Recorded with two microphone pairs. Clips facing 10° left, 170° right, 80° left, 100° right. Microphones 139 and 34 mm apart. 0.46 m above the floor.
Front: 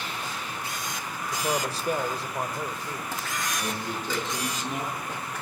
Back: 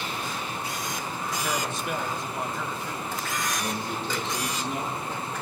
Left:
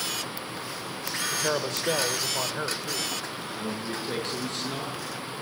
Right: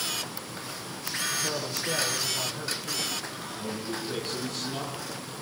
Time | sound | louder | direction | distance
1.3 | a man speaking | front 3 dB, left 4 dB | 60° left | 1.6 m
3.5 | a man speaking | back 1 dB, left 1 dB | 60° left | 8.5 m